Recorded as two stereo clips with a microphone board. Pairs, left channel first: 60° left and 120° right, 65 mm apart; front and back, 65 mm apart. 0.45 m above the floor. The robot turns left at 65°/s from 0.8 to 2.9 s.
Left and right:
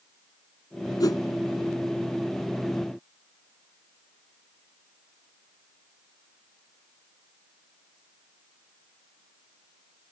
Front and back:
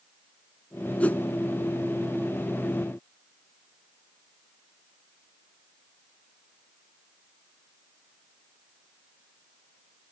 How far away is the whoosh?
About 0.8 m.